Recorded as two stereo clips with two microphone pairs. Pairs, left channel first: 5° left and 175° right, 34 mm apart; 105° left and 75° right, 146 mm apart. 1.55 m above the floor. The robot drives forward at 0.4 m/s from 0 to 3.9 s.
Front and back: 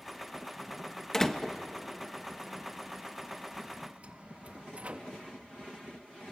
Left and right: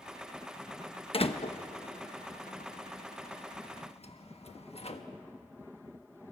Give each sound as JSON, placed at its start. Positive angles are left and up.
{"t": 1.1, "sound": "a door slam", "azimuth_deg": 75, "distance_m": 1.0}